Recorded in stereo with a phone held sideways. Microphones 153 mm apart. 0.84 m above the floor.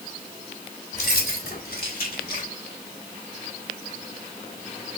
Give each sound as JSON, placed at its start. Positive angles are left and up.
{"t": 0.9, "sound": "keys jangling", "side_deg": 80, "distance_m": 2.0}